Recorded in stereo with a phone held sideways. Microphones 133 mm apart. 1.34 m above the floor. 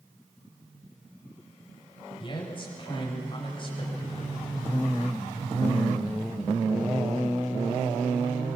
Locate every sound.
2.2 s a man speaking: 40° left (ahead or behind), 8.5 m